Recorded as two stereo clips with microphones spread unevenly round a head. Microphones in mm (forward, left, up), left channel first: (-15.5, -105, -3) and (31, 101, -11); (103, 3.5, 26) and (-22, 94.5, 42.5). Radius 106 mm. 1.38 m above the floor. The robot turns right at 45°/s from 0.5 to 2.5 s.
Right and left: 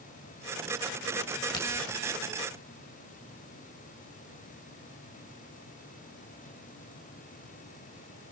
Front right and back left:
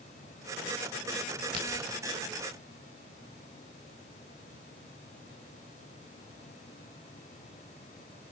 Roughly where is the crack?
Behind.